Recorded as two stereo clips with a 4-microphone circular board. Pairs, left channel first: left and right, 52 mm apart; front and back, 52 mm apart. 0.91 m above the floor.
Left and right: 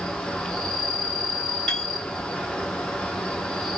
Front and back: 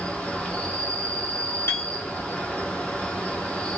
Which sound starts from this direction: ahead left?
An insect, at 0.0 s.